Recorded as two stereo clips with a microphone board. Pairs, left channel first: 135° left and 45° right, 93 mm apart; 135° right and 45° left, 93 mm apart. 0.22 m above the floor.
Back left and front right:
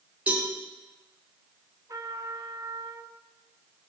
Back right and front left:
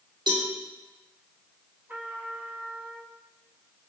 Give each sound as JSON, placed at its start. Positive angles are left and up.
{"t": 0.3, "sound": "a cowbell", "azimuth_deg": 30, "distance_m": 5.0}
{"t": 1.9, "sound": "a trumpet", "azimuth_deg": -20, "distance_m": 1.9}